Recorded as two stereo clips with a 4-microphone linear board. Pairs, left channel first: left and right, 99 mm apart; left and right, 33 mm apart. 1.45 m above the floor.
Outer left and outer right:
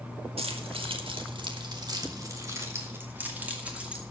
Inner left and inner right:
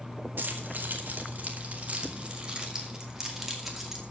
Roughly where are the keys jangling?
Right.